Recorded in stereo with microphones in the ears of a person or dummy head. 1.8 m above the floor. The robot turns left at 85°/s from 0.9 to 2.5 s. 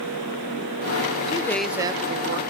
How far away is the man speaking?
About 0.6 m.